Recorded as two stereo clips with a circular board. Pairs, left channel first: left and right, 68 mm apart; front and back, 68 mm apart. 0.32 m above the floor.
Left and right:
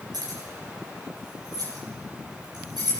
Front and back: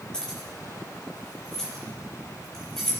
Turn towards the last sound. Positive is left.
turn(degrees=-85)